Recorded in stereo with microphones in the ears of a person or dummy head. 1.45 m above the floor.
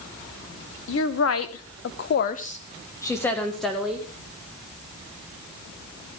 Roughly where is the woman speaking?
Left.